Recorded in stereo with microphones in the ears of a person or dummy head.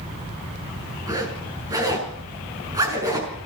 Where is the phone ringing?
No phone ringing in this recording.